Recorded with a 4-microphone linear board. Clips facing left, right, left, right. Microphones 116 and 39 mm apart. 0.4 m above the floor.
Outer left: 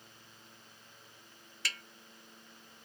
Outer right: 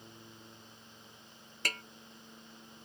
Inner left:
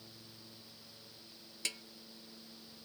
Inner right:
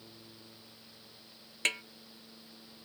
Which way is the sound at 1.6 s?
45° right (ahead or behind).